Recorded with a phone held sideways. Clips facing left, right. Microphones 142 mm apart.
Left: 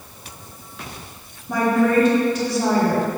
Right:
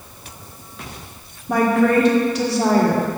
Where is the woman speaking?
75° right (ahead or behind), 1.1 m.